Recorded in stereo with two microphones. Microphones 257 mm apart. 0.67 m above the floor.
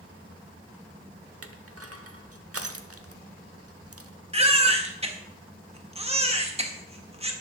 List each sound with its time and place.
1.4 s crushing: 75° right (ahead or behind), 0.9 m
4.3 s a baby crying: 25° right (ahead or behind), 1.4 m